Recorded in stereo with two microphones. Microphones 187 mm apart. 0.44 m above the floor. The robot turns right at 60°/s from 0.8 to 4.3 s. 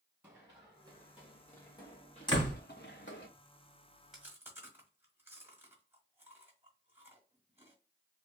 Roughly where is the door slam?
Left.